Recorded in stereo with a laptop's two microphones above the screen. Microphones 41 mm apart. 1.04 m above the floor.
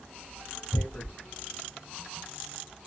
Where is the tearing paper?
65° left (ahead or behind), 1.5 m.